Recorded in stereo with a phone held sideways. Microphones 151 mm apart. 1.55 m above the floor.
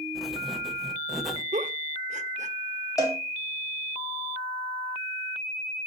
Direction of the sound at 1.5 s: 55° right (ahead or behind).